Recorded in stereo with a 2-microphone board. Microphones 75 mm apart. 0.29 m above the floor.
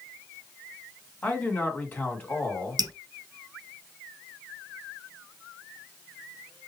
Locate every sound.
1.2 s a man speaking: 20° left (ahead or behind), 2 m
2.8 s dripping: 60° right (ahead or behind), 1.1 m